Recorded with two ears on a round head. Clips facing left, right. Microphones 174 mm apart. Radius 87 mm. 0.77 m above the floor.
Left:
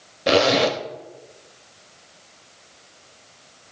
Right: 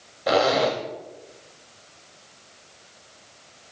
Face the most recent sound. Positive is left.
turn(degrees=35)  # may be behind; listen again after turning